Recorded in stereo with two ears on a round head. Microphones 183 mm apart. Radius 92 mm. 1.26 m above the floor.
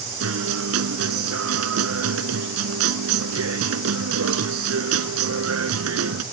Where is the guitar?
80° right.